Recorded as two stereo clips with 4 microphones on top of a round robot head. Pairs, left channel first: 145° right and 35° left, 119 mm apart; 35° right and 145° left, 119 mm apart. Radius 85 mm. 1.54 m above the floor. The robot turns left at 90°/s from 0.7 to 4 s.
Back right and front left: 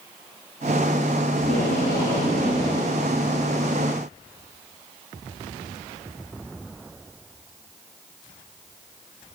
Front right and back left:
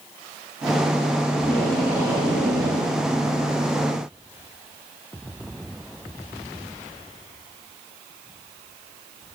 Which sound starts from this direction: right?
Tape being pulled, at 1.4 s.